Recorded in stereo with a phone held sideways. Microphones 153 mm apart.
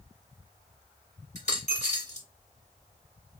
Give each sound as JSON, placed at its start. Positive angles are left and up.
{"t": 1.4, "sound": "a dropped coin", "side_deg": 50, "distance_m": 2.0}